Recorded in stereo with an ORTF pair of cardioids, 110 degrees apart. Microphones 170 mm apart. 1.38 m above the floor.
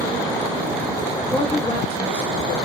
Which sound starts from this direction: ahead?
A woman speaking, at 1.3 s.